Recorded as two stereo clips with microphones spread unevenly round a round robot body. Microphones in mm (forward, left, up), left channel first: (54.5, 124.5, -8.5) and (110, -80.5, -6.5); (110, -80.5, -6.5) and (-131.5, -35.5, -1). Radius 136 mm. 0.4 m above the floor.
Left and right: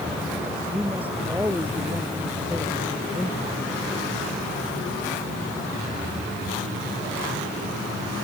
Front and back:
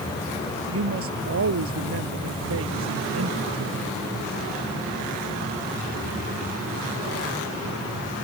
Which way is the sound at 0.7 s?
160° right.